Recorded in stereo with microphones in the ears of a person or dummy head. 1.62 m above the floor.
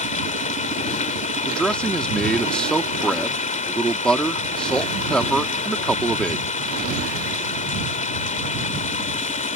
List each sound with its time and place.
0.0 s running water: 35° left (ahead or behind)
1.4 s a man speaking: centre (ahead or behind)